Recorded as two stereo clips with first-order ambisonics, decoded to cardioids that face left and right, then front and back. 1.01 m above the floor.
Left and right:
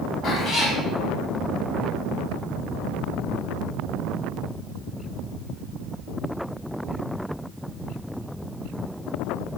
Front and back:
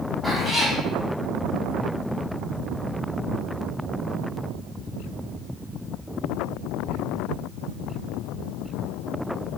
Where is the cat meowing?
75° left, 0.9 m.